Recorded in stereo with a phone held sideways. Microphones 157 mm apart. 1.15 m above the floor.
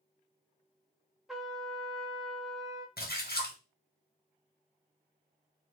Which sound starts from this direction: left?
A splash, at 3.0 s.